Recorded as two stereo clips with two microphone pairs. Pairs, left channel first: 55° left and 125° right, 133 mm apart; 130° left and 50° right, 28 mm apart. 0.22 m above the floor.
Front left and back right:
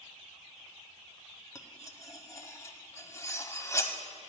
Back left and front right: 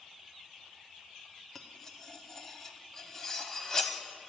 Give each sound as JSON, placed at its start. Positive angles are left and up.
{"t": 1.6, "sound": "cutlery clinking", "azimuth_deg": 80, "distance_m": 0.6}